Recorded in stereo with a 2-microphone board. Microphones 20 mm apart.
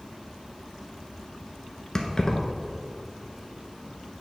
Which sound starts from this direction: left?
Keys jangling, at 1.9 s.